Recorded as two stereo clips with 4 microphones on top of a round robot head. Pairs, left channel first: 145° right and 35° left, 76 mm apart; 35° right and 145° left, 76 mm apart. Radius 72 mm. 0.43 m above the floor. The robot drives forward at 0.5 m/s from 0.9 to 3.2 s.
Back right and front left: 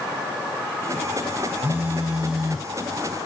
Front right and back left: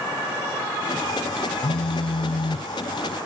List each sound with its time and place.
1.6 s a phone buzzing: 35° right; by 2.7 s 55° right